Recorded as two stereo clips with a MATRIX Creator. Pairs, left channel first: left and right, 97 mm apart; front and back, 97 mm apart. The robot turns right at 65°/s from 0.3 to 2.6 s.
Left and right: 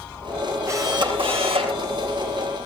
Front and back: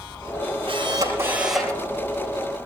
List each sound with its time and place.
0.7 s a camera shutter: 150° right, 5.5 m; by 1.8 s 75° right, 5.5 m